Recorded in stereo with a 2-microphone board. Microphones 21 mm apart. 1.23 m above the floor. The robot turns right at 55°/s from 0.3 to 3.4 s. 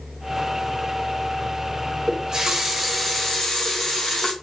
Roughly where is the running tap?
Ahead right.